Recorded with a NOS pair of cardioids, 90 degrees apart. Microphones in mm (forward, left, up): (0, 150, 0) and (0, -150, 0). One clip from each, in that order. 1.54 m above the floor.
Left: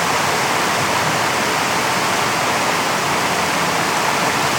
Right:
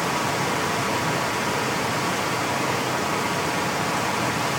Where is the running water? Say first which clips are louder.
Left 7 dB; 50° left, 1.0 m.